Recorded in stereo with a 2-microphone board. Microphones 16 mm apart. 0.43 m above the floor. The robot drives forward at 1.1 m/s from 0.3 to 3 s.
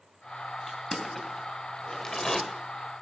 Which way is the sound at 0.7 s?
20° left (ahead or behind).